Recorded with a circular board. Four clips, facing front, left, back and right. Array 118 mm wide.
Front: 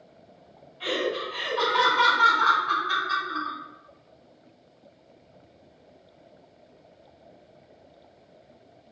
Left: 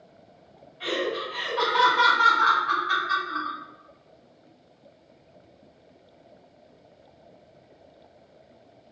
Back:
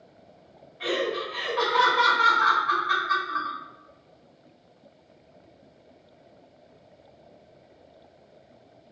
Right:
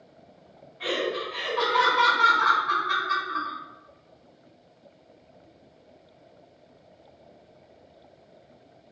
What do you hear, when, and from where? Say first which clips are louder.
0.8 s laughter: even, back 1 dB; 145° right, 1.9 m